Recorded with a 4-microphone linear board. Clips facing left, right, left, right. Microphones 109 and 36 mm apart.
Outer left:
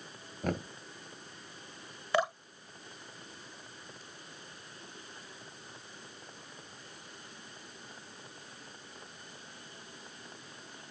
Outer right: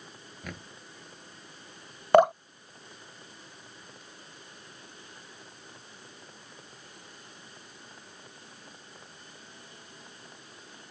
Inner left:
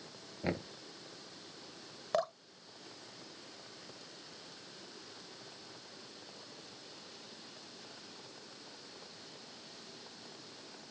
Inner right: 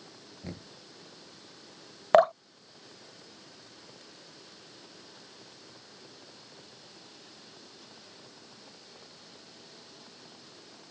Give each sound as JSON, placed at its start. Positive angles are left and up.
{"t": 0.4, "sound": "knocking", "side_deg": 45}
{"t": 2.1, "sound": "dripping", "side_deg": -55}